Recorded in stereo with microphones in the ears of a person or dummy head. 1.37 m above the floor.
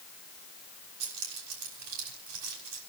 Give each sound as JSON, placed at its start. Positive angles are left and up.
{"t": 1.0, "sound": "keys jangling", "side_deg": -80, "distance_m": 6.0}